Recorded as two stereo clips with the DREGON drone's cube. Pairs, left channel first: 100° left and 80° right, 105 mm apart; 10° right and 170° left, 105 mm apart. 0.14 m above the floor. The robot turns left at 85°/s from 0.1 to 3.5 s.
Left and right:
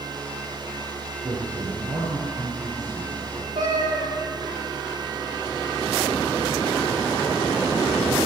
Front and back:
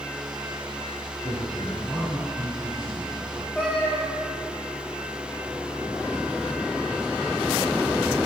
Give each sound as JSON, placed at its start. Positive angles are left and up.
{"t": 1.2, "sound": "a man speaking", "azimuth_deg": -30, "distance_m": 2.0}
{"t": 3.5, "sound": "a cat meowing", "azimuth_deg": -100, "distance_m": 4.5}